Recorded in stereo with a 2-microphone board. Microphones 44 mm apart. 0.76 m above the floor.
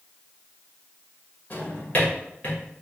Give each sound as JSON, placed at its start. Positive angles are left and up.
{"t": 1.5, "sound": "a drawer", "side_deg": 40, "distance_m": 1.6}